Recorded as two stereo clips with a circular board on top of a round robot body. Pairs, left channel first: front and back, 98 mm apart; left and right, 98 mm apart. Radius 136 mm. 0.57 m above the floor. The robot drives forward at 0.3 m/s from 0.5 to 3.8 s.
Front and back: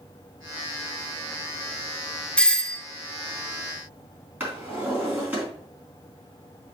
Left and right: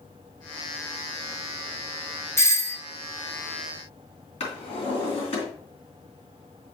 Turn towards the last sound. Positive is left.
turn(degrees=105)